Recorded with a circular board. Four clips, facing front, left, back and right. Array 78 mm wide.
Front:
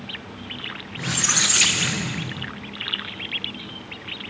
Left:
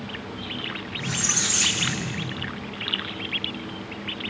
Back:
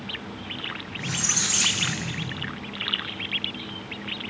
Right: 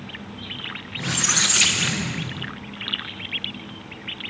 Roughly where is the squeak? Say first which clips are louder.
Right 6 dB, front 6 dB; ahead right.